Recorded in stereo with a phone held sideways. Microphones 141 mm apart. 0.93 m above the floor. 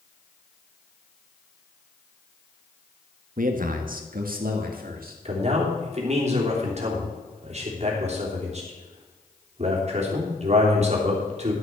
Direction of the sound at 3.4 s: 65° right (ahead or behind).